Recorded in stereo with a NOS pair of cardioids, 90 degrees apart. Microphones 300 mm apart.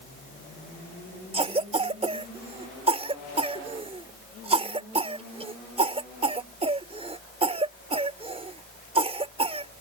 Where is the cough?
20° right.